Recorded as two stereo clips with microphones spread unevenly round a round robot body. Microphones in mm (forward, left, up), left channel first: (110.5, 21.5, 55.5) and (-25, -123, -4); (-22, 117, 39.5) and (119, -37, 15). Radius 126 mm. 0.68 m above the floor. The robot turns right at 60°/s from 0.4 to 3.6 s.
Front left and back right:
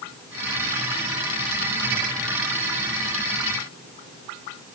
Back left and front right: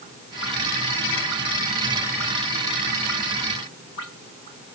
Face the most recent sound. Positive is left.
No sound to turn to.